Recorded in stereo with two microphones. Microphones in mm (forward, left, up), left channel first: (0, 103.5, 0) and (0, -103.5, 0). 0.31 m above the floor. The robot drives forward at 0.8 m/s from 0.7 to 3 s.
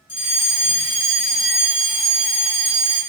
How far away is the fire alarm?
About 2.5 m.